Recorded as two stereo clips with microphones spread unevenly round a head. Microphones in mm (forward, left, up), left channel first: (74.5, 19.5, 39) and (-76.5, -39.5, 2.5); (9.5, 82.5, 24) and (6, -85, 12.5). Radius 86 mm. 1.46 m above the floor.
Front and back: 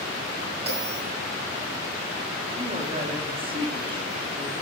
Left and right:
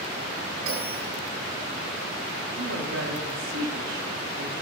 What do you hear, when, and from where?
0.7 s a bell: 100° right, 9.5 m
2.6 s a woman speaking: 100° right, 4 m